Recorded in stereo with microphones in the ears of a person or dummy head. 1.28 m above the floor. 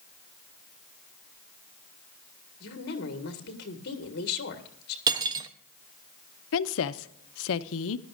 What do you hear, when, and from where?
2.6 s a woman speaking: 60° left (ahead or behind), 1.6 m
5.1 s cutlery clinking: 25° right (ahead or behind), 0.7 m
6.5 s a woman speaking: 75° left (ahead or behind), 0.6 m